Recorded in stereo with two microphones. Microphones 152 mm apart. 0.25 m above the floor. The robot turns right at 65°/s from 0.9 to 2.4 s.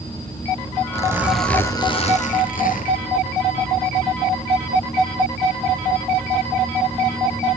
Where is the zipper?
30° right, 2.5 m; by 3.0 s 70° left, 2.5 m.